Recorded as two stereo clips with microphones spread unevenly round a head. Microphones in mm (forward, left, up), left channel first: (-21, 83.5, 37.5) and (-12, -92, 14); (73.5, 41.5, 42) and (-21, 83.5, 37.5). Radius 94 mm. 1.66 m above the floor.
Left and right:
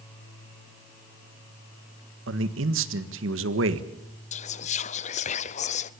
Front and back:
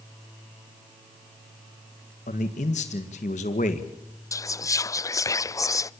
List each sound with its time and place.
2.3 s a man speaking: 65° right, 1.7 m
4.3 s whispering: 35° left, 0.7 m